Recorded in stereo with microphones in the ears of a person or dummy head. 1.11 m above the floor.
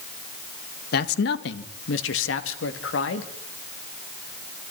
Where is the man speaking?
60° left (ahead or behind), 1.5 m; by 3.3 s 70° left (ahead or behind), 2.5 m.